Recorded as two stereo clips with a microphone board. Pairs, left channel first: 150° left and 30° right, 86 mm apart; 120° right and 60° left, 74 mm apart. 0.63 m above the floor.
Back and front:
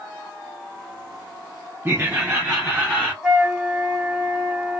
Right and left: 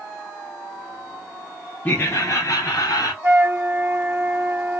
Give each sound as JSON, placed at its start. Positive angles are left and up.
{"t": 1.9, "sound": "laughter", "azimuth_deg": -70, "distance_m": 0.6}
{"t": 3.2, "sound": "a flute", "azimuth_deg": 40, "distance_m": 1.1}